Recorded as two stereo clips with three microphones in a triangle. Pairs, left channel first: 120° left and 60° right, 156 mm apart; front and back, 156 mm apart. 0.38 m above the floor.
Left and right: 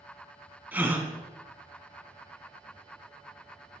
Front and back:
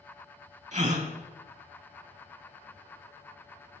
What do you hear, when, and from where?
0.7 s a gasp: 140° right, 0.6 m